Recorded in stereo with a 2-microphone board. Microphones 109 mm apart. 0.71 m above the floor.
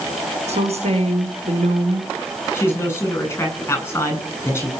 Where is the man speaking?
20° left (ahead or behind), 9 m.